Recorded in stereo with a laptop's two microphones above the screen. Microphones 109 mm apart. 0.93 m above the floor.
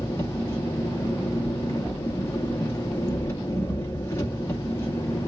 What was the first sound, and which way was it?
An engine running, 25° left (ahead or behind).